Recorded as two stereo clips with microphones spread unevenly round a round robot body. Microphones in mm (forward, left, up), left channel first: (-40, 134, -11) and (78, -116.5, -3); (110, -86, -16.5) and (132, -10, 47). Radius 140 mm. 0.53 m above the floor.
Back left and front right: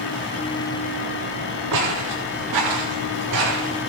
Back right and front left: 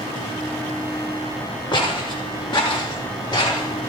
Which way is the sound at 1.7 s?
75° right.